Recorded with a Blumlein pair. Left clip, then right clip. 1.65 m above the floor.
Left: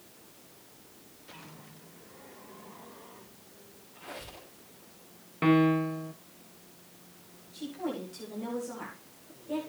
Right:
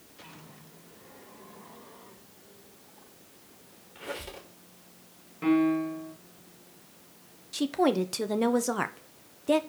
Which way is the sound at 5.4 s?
25° left.